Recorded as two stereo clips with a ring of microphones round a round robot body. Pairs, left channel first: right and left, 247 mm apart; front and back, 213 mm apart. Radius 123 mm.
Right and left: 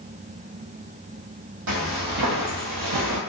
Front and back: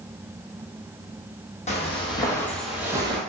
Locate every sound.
1.7 s footsteps: 60° left, 1.2 m; by 3.2 s 120° left, 0.8 m